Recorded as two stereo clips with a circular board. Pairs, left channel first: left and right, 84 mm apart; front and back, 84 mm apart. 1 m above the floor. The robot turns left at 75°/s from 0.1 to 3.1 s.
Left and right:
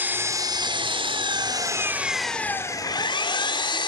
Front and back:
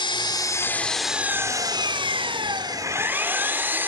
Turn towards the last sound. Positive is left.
turn(degrees=115)